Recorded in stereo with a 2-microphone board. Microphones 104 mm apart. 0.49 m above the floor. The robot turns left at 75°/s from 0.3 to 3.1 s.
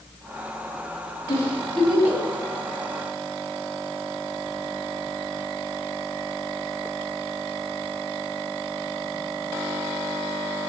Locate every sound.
1.3 s a giggle: 40° left (ahead or behind), 3.5 m; by 2.2 s 25° right (ahead or behind), 3.5 m